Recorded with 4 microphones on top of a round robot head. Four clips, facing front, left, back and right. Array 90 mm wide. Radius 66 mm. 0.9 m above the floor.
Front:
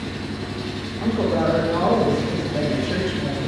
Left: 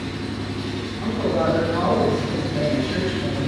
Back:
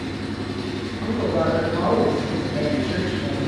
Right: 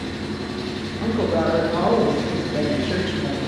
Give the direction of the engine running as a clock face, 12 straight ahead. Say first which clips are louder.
Even, back 1 dB; 4 o'clock.